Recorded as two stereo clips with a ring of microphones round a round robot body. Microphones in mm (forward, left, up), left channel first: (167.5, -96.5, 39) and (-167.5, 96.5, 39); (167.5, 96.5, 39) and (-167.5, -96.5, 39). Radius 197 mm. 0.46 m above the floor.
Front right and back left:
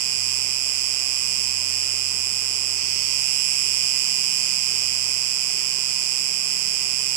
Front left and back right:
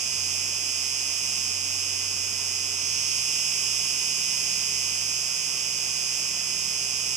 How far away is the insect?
About 1.0 m.